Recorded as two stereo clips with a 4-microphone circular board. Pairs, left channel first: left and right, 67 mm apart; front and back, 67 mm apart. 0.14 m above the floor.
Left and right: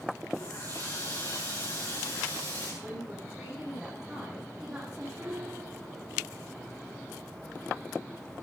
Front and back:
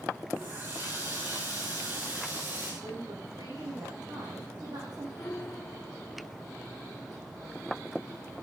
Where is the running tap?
120° left, 8.5 m.